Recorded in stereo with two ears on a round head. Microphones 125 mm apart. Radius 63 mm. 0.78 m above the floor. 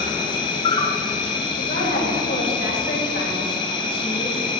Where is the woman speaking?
65° left (ahead or behind), 4 m.